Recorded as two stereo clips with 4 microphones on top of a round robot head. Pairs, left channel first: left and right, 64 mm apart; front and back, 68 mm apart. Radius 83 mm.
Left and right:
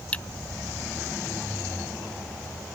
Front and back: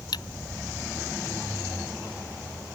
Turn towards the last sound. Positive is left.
turn(degrees=20)